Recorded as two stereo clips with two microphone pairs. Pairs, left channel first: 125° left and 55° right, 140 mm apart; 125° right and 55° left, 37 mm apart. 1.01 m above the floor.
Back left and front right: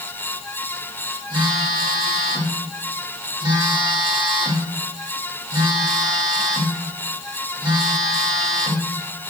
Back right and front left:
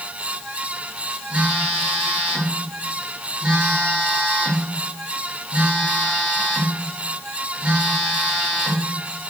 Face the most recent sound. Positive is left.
turn(degrees=-5)